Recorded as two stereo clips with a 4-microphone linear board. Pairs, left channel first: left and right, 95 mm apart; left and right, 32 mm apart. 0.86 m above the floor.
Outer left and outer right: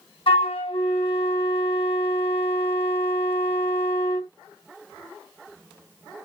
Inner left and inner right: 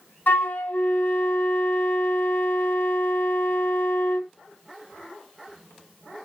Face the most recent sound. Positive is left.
turn(degrees=80)